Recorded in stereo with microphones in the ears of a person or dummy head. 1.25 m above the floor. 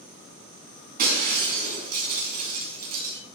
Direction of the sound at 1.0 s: 50° right (ahead or behind).